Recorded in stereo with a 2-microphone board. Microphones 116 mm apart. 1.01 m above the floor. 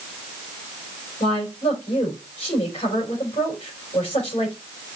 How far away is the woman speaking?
About 3.5 m.